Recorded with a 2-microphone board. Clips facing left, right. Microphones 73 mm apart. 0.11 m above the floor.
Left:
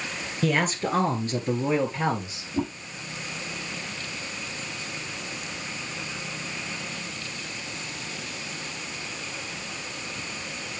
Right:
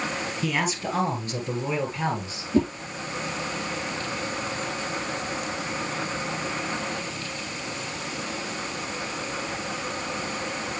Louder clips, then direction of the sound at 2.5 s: Right 6 dB; 65° right (ahead or behind).